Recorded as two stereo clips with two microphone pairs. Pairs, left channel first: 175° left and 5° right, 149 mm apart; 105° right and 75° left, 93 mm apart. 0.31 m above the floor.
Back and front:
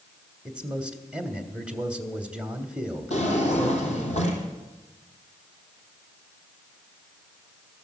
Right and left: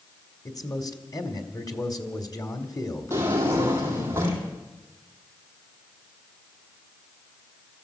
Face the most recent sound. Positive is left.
turn(degrees=135)